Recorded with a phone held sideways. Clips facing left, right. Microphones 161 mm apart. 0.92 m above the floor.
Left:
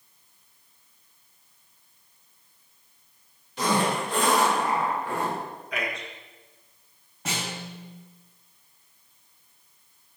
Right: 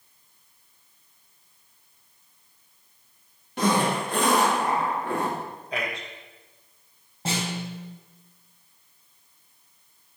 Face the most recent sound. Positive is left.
turn(degrees=-35)  # may be behind; listen again after turning